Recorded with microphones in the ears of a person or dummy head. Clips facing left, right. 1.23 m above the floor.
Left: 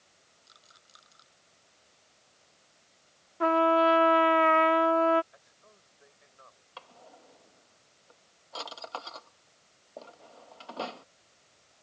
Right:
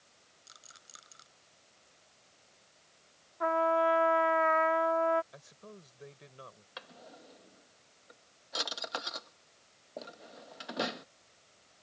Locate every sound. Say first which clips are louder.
0.5 s a rattle: right 3 dB; 35° right (ahead or behind)
3.4 s a trumpet: left 5 dB; 50° left (ahead or behind)
5.3 s a man speaking: right 9 dB; 55° right (ahead or behind)
6.8 s a drawer: even; 20° right (ahead or behind)